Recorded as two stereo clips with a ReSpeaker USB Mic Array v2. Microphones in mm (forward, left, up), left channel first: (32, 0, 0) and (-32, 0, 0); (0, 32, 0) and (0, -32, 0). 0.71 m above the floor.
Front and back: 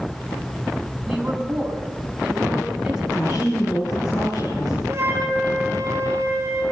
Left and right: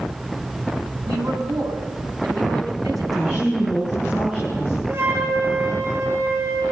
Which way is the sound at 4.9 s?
130° right.